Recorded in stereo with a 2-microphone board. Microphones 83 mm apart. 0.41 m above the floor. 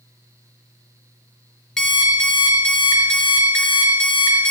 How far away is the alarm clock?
About 2.5 m.